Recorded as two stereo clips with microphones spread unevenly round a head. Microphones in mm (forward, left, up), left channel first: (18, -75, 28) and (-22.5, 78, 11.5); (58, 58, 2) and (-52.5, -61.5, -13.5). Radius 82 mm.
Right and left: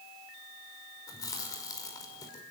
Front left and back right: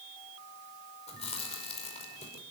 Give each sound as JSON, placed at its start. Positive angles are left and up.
{"t": 1.1, "sound": "chewing", "azimuth_deg": -5, "distance_m": 5.0}